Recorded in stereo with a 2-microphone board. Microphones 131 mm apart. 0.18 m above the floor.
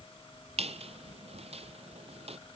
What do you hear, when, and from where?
0.6 s a squeak: 50° right (ahead or behind), 0.9 m